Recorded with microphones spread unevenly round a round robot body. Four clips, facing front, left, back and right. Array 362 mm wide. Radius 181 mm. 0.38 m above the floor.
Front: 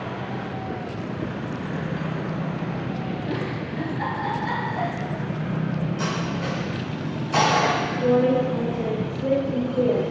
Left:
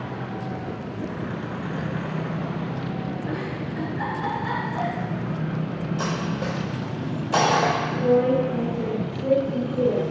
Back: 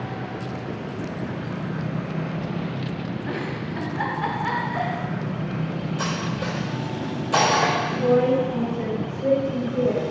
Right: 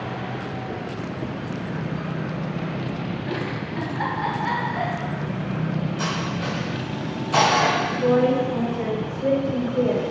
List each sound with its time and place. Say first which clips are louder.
3.3 s a giggle: right 1 dB, front 1 dB; 175° right, 0.8 m
6.0 s cutlery clinking: even, even; 135° left, 0.9 m
7.9 s a woman speaking: left 1 dB, even; 100° right, 1.1 m